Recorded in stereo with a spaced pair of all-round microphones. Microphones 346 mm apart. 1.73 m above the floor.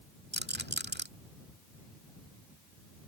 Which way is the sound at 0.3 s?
30° right (ahead or behind).